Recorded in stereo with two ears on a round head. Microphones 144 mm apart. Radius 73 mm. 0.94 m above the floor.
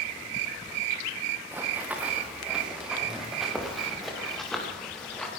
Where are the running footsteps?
15° right (ahead or behind), 4.5 m; by 5.3 s 5° left (ahead or behind), 7.5 m.